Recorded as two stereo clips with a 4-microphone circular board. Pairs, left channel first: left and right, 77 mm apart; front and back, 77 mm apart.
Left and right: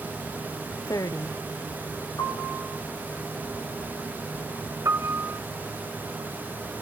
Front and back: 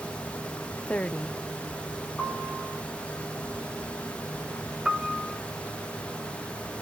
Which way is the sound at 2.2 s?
80° left.